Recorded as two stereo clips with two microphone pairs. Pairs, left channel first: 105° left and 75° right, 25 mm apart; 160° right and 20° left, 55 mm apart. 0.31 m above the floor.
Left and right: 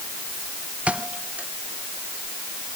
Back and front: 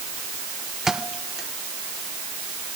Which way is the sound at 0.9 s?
60° right.